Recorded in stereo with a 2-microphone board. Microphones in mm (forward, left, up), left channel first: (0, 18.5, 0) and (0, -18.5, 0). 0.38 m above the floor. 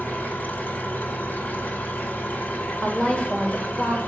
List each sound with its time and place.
0.0 s an engine running: 50° left (ahead or behind), 1.4 m
2.8 s a woman speaking: 30° left (ahead or behind), 1.2 m